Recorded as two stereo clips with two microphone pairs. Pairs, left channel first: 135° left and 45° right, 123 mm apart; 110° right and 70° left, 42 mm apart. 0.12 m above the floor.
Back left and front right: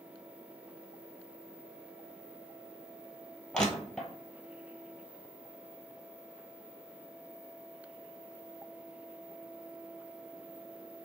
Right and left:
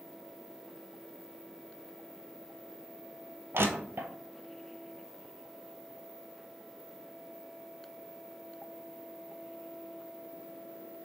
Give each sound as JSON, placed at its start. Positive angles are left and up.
{"t": 3.5, "sound": "crushing", "azimuth_deg": 50, "distance_m": 0.7}